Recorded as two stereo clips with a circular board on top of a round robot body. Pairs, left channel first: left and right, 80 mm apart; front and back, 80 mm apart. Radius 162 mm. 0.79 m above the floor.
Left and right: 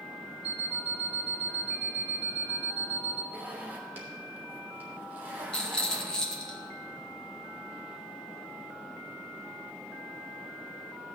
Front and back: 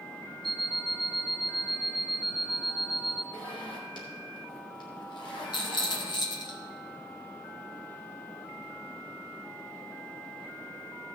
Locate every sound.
0.4 s an alarm clock: 175° right, 1.2 m
3.3 s a zipper: 25° right, 1.8 m
5.5 s a rattle: 10° left, 1.8 m